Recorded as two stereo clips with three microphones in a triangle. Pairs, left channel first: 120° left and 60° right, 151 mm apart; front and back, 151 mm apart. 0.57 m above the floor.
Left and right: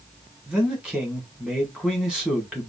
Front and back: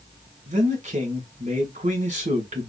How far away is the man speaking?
About 2.0 m.